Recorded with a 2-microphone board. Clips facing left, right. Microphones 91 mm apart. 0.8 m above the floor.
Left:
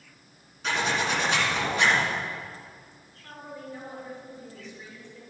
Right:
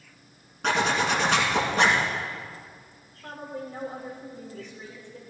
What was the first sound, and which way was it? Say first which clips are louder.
A zipper: right 3 dB; 65° right (ahead or behind).